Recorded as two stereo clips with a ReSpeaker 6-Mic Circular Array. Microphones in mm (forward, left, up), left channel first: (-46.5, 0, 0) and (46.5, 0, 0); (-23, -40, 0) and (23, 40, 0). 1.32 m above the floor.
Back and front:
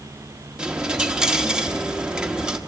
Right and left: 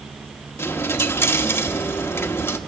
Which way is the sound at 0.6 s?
75° right.